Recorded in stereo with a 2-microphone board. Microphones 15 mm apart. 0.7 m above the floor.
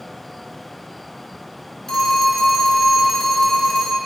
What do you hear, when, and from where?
1.9 s a phone ringing: 35° left (ahead or behind), 2 m